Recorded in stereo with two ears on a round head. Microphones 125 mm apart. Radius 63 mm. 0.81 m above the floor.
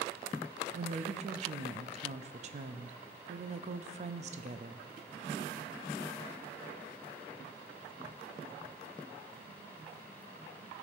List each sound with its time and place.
0.7 s a woman speaking: 50° right (ahead or behind), 0.5 m